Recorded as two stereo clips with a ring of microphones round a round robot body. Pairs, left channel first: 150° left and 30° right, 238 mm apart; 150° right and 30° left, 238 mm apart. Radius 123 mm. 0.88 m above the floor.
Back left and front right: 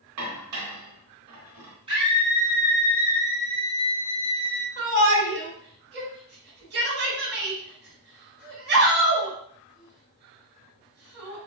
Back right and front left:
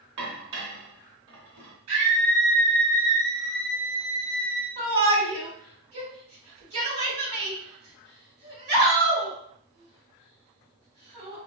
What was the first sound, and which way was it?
Dishes clattering, 10° right.